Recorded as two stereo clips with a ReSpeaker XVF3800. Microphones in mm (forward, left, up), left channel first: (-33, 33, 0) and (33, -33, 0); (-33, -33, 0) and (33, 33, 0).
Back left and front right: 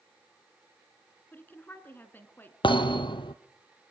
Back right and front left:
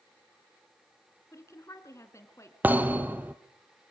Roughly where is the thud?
Behind left.